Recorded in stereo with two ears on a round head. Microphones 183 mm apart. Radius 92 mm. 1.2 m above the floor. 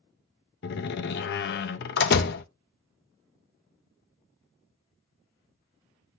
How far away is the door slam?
About 0.6 m.